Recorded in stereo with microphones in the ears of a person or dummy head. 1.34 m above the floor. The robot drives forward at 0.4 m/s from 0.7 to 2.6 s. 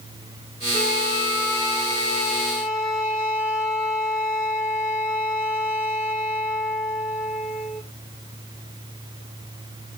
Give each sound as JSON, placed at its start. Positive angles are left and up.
{"t": 0.7, "sound": "a flute", "side_deg": 85, "distance_m": 1.8}